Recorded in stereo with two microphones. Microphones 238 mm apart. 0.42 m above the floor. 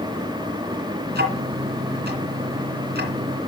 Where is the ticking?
45° right (ahead or behind), 2.5 m.